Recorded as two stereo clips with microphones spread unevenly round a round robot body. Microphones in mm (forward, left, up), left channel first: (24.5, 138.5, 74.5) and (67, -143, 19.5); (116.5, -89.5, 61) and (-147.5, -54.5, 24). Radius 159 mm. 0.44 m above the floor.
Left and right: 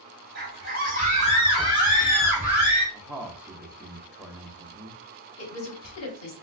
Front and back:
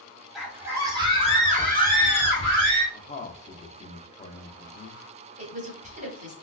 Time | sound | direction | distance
0.3 | a scream | 105° right | 1.6 m
2.9 | a man speaking | 40° right | 0.7 m
5.4 | a woman speaking | 125° left | 1.5 m